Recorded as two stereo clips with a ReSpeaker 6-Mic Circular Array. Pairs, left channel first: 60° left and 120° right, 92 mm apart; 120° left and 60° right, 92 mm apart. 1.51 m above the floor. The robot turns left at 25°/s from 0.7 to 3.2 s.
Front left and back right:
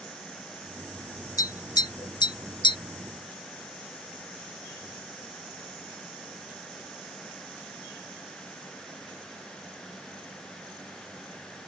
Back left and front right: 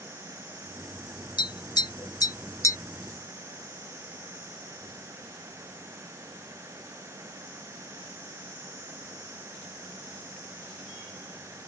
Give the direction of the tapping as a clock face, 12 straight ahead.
9 o'clock.